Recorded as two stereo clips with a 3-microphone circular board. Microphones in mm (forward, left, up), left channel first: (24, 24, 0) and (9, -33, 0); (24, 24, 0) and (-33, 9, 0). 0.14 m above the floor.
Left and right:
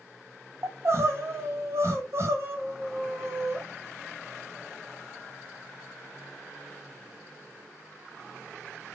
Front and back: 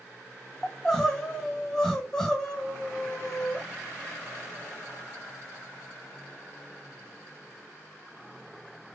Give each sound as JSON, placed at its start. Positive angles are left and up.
{"t": 0.6, "sound": "crying", "azimuth_deg": -75, "distance_m": 1.0}